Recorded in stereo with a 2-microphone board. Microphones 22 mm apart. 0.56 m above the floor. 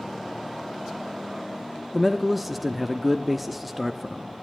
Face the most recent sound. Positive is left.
turn(degrees=0)  # may be behind; listen again after turning